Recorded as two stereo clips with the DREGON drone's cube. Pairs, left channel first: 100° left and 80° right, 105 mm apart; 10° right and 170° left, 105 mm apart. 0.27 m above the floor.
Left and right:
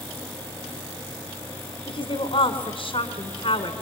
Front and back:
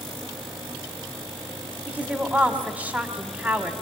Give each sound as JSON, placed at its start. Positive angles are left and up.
{"t": 1.9, "sound": "a woman speaking", "azimuth_deg": 95, "distance_m": 2.5}